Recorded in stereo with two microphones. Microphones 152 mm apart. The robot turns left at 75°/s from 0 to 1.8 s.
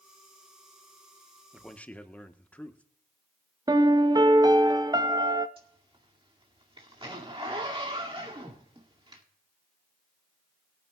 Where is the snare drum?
No snare drum in this recording.